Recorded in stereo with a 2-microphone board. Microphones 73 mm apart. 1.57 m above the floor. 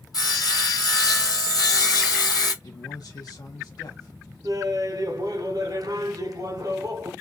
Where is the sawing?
60° left (ahead or behind), 1.2 m.